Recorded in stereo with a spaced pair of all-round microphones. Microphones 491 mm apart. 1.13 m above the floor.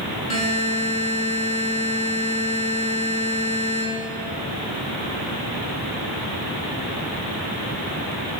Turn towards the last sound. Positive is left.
turn(degrees=80)